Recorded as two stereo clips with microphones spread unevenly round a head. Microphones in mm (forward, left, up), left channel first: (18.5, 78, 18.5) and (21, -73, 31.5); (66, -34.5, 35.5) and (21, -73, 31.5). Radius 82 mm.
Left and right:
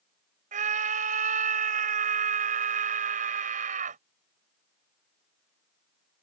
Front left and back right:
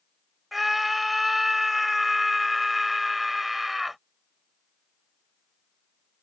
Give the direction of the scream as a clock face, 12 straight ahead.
2 o'clock.